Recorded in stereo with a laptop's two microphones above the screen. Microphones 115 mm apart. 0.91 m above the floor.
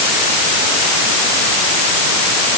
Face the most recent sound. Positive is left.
No sound to turn to.